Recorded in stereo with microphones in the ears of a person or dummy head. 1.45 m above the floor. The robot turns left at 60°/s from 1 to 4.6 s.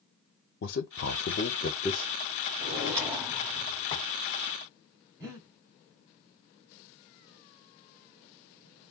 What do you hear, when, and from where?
0.6 s a man speaking: 60° left (ahead or behind), 0.6 m; by 2.1 s 10° left (ahead or behind), 0.6 m
2.6 s a drawer: 145° right, 1.5 m; by 4.1 s 130° left, 1.5 m
5.2 s breathing: 15° right (ahead or behind), 2 m